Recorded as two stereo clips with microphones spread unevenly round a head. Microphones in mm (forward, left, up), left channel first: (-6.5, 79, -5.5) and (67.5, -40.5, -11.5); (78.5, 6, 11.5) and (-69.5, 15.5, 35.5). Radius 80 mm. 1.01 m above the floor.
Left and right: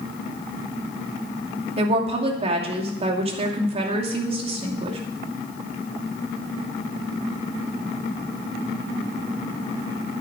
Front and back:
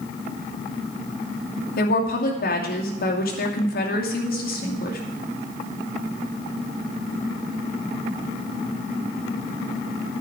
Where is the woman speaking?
15° right, 2.5 m.